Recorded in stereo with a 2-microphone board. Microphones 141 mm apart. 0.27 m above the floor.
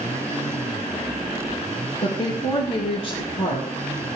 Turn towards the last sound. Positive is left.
turn(degrees=65)  # may be behind; listen again after turning